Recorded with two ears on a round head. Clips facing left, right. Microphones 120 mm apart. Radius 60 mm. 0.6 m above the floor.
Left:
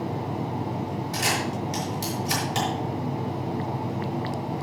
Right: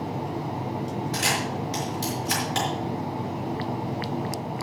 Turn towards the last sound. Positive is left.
turn(degrees=15)  # may be behind; listen again after turning